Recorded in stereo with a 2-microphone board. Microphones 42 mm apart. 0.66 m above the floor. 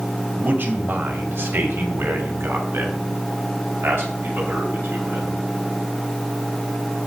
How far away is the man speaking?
About 2.5 m.